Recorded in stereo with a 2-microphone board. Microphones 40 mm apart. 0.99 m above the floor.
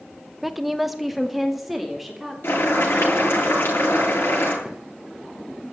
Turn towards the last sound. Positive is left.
turn(degrees=-5)  # may be behind; listen again after turning